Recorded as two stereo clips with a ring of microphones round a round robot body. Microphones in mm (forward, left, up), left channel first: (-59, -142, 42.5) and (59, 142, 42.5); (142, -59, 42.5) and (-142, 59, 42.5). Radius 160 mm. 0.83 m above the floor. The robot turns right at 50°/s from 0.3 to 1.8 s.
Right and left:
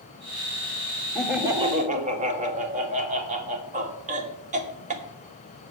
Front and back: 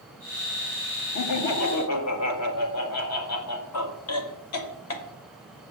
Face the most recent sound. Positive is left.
turn(degrees=5)